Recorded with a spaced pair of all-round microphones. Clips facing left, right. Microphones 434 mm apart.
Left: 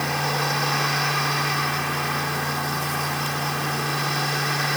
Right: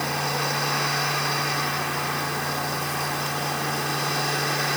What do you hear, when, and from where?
0.0 s a fan: 15° left (ahead or behind)